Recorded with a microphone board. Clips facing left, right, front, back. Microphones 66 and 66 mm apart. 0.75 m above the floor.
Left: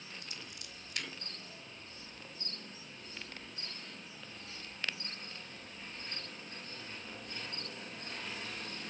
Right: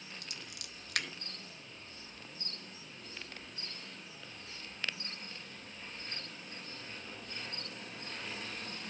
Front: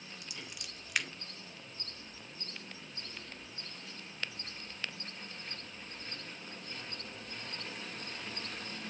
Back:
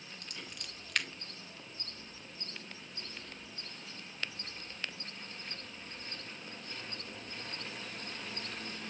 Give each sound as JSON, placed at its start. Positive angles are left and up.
{"t": 0.2, "sound": "scissors", "azimuth_deg": -85, "distance_m": 2.0}